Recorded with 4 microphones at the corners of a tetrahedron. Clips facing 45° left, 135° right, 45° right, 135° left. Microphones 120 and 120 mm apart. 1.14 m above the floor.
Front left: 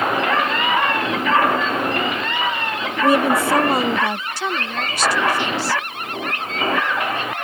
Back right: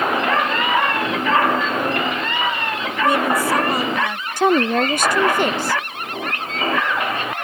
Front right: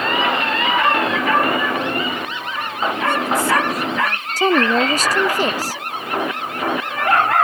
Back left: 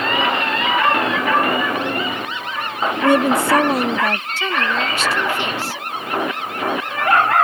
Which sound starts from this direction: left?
A woman speaking, at 3.0 s.